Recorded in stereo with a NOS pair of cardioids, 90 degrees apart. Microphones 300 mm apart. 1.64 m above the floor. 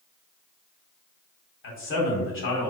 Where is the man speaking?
45° left, 1.1 m.